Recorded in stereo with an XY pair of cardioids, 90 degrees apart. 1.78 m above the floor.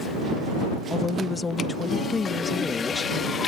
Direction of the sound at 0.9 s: 35° left.